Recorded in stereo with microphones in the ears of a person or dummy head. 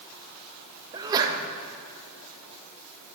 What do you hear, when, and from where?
0.9 s a sneeze: 20° right (ahead or behind), 1.7 m